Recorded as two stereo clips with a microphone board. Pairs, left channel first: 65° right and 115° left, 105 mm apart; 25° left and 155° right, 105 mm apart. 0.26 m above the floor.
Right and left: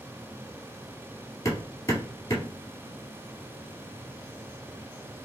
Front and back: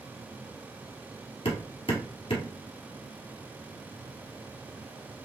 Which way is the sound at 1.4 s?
10° right.